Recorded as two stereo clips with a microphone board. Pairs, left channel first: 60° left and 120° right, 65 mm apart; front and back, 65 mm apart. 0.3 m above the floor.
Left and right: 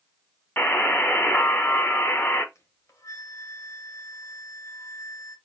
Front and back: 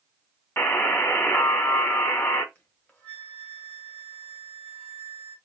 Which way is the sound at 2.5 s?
60° left.